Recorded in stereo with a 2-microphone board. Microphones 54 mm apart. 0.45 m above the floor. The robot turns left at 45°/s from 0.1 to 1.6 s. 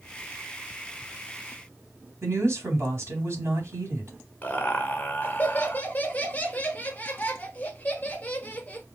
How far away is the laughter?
About 1.0 m.